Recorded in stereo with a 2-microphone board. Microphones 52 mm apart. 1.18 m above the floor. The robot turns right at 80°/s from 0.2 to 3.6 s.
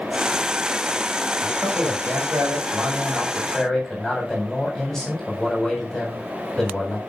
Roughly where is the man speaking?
Behind.